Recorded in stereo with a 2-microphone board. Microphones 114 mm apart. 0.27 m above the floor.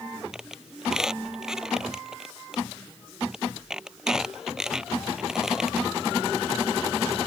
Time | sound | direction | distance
0.3 | a squeak | 5° right (ahead or behind) | ?